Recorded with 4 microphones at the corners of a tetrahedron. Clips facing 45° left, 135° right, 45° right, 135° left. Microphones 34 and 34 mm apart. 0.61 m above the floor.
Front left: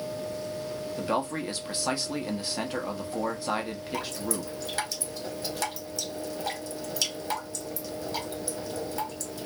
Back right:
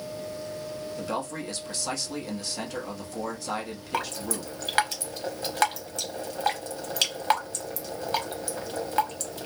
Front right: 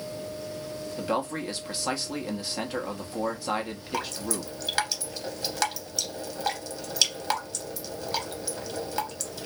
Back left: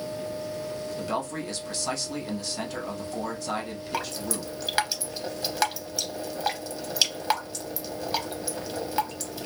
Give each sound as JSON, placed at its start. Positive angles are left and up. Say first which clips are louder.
{"t": 1.0, "sound": "a man speaking", "louder": "front left 4 dB, front right 4 dB", "azimuth_deg": 5, "distance_m": 0.7}
{"t": 3.9, "sound": "dripping", "louder": "back right 3 dB, even", "azimuth_deg": -150, "distance_m": 0.6}